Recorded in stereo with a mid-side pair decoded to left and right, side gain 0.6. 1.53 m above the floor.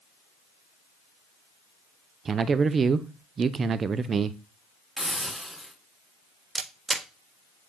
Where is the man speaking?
35° right, 0.7 m.